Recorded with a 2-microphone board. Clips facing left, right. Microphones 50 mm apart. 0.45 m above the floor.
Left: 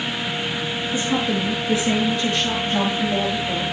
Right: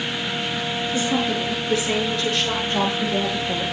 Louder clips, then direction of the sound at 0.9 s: Left 1 dB; 20° left (ahead or behind).